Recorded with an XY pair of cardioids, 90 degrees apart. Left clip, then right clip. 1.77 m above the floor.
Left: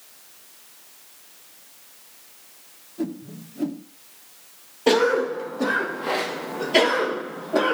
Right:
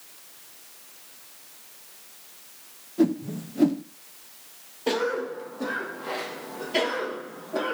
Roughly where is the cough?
Ahead left.